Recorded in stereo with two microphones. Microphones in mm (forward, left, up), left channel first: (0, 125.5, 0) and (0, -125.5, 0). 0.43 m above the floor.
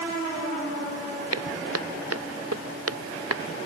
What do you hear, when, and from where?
1.3 s footsteps: 70° right (ahead or behind); by 3.5 s 60° right (ahead or behind)